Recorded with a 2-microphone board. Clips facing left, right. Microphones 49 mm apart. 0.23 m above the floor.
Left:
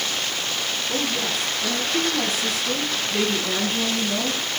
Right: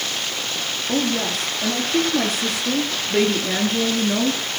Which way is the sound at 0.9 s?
65° right (ahead or behind).